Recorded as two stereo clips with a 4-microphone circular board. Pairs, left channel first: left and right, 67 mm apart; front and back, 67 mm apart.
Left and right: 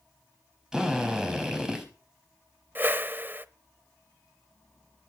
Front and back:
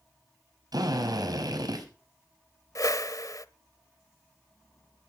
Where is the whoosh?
30° right, 1.0 m.